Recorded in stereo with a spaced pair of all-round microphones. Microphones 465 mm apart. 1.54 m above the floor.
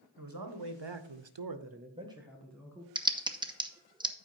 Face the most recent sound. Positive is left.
turn(degrees=-10)  # may be behind; listen again after turning